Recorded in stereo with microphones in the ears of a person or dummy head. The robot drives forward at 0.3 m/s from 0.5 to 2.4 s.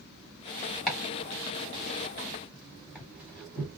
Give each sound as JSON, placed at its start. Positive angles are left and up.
{"t": 0.9, "sound": "chopping", "side_deg": 0, "distance_m": 1.2}